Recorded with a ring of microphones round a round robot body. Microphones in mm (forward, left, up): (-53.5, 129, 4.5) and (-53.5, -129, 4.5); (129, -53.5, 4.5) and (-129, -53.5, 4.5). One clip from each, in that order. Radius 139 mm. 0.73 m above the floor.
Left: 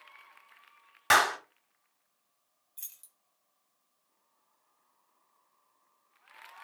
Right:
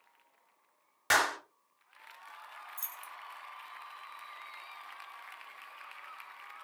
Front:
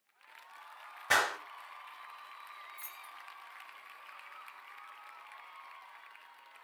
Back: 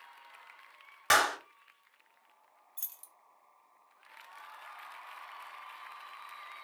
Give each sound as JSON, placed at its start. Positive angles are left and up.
{"t": 1.1, "sound": "a clap", "azimuth_deg": 175, "distance_m": 1.1}
{"t": 2.8, "sound": "keys jangling", "azimuth_deg": -165, "distance_m": 0.8}